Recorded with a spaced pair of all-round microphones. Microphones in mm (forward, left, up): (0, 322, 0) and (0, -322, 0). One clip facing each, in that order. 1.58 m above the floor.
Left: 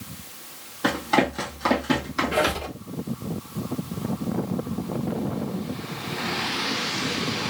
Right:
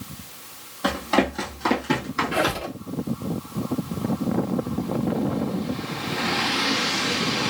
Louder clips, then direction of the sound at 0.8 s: Right 1 dB; 10° right (ahead or behind).